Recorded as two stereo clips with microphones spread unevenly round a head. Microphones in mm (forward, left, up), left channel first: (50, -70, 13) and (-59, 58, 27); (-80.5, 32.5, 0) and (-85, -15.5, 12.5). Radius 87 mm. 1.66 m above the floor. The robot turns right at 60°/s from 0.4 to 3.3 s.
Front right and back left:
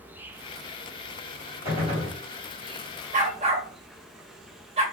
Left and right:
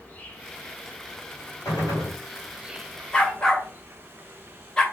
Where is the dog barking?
160° left, 2 m; by 4.8 s 170° left, 2 m.